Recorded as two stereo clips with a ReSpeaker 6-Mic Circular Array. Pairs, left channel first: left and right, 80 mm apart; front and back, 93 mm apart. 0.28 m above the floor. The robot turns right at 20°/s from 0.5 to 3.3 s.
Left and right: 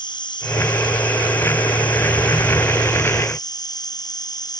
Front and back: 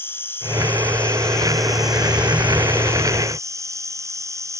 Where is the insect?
65° left; by 4.6 s 120° left.